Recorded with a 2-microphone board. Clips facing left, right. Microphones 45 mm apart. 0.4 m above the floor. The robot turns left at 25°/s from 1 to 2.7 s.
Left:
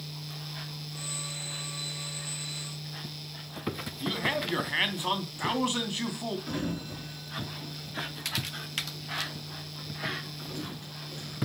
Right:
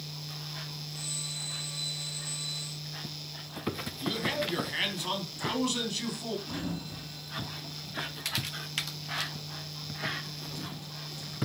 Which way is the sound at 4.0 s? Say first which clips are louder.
Left 2 dB; 25° left (ahead or behind).